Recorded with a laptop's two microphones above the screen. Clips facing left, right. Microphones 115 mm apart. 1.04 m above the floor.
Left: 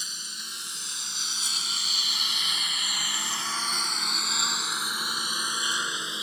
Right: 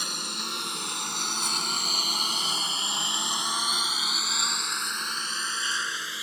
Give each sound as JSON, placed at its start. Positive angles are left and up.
{"t": 0.0, "sound": "a lawn mower", "side_deg": -75}